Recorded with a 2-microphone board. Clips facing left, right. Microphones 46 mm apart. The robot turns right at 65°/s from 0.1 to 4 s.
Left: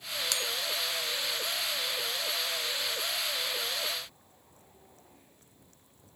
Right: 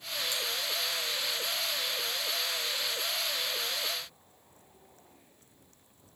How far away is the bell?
About 0.8 m.